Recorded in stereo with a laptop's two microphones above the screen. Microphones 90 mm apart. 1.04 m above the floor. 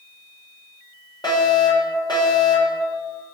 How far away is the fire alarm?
About 6.5 m.